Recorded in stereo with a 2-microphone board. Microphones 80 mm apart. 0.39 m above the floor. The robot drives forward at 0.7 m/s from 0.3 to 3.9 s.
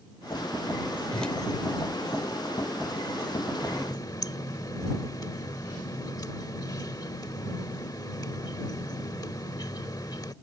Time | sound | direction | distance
1.1 | a whoosh | 10° left (ahead or behind) | ?
3.6 | a running tap | 50° left (ahead or behind) | ?